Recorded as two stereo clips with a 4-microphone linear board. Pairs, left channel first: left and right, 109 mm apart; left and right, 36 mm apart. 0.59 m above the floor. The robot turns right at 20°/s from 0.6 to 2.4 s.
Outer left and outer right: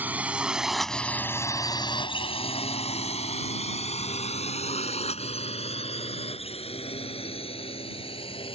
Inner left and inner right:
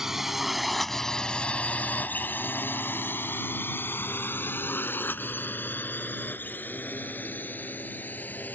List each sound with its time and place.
0.0 s a drone: 15° right (ahead or behind); by 8.6 s 55° left (ahead or behind)